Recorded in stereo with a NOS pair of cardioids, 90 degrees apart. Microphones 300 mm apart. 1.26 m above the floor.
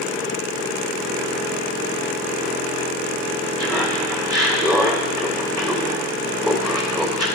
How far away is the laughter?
About 3 m.